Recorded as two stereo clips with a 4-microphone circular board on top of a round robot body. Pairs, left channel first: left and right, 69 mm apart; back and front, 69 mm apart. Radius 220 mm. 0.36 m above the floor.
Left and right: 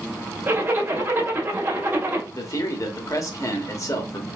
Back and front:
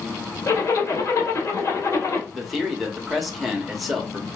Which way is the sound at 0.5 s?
145° right.